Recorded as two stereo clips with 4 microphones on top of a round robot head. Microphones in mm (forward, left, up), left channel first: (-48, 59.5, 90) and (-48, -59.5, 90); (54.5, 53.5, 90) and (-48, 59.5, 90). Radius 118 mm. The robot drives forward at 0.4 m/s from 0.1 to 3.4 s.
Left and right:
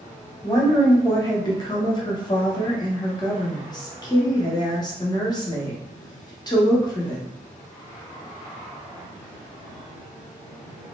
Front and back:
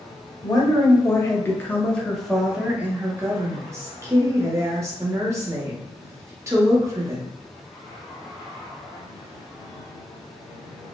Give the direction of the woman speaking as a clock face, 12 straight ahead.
11 o'clock.